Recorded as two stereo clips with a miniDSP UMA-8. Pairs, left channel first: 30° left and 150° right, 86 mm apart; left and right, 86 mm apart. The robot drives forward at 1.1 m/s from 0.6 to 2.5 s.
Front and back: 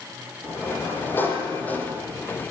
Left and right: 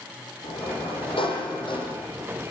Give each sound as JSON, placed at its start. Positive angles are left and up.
{"t": 0.4, "sound": "a sliding door", "azimuth_deg": 90, "distance_m": 7.0}